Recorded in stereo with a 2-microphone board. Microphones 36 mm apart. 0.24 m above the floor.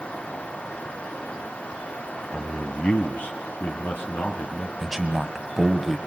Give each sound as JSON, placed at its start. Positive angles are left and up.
{"t": 2.3, "sound": "a man speaking", "side_deg": 30, "distance_m": 1.2}
{"t": 4.8, "sound": "a man speaking", "side_deg": -10, "distance_m": 1.5}